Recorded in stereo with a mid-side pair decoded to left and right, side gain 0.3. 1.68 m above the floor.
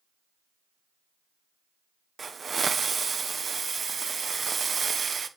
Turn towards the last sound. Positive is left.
turn(degrees=-50)